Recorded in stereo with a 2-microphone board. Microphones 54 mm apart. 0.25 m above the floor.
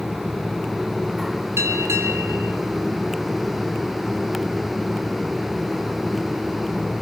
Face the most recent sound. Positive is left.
turn(degrees=-55)  # may be behind; listen again after turning